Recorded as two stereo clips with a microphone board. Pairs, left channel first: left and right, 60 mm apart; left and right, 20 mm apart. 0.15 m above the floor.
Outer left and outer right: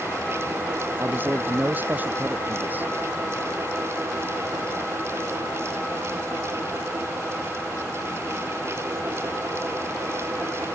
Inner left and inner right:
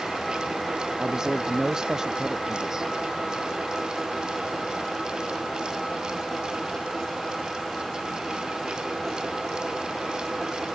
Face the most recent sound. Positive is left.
turn(degrees=-30)  # may be behind; listen again after turning